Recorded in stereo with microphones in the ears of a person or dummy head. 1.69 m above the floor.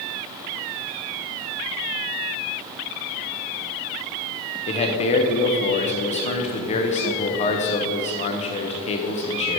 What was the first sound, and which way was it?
A man speaking, 35° left (ahead or behind).